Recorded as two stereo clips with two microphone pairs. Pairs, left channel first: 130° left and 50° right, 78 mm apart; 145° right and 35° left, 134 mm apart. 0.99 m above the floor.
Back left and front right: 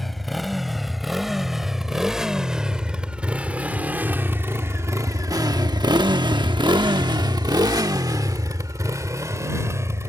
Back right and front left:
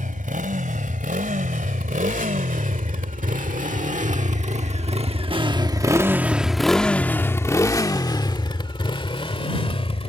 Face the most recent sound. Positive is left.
turn(degrees=-105)